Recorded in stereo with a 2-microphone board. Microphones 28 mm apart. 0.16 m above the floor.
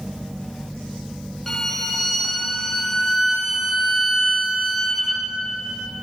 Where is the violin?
5° left (ahead or behind), 0.9 m.